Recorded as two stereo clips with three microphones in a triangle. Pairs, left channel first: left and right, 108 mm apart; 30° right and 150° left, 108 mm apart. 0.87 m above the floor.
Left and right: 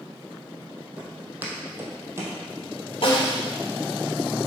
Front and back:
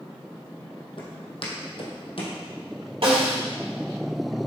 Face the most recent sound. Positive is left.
turn(degrees=120)